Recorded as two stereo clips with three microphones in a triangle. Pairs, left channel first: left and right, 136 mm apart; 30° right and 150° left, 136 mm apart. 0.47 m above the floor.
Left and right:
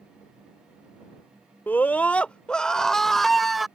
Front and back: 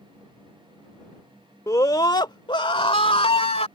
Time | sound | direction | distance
1.7 | a scream | 20° left | ?